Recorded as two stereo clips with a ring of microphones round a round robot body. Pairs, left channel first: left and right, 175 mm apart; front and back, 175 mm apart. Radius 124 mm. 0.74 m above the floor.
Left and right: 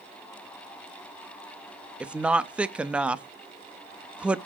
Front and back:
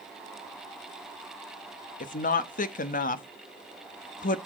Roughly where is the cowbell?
I don't hear a cowbell.